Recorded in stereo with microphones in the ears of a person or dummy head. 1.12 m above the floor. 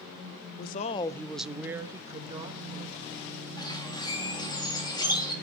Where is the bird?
15° left (ahead or behind), 2 m.